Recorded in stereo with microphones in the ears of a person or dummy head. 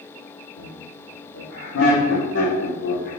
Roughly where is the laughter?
Left.